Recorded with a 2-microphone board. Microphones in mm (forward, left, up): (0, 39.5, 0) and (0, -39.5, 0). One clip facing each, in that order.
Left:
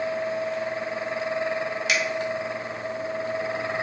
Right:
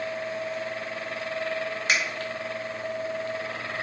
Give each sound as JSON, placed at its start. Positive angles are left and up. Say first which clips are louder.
{"t": 1.9, "sound": "a finger snap", "louder": "even", "side_deg": -40, "distance_m": 2.0}